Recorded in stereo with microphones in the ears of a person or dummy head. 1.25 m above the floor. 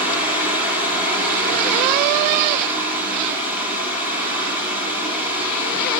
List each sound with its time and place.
0.0 s a fan: 10° right (ahead or behind), 5 m